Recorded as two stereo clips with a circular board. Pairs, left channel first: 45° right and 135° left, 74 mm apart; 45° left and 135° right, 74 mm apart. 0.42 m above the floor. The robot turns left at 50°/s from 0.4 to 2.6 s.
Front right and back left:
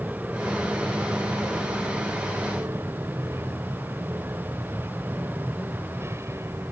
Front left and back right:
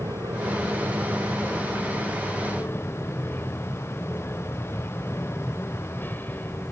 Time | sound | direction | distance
0.0 | an aircraft | 155° right | ?